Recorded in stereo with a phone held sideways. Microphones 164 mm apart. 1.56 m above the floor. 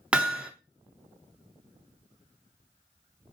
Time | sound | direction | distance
0.1 | hammering | 5° right (ahead or behind) | 0.7 m